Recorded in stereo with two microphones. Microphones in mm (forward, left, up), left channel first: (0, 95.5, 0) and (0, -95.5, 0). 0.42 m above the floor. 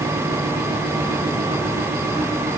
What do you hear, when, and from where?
Only background noise.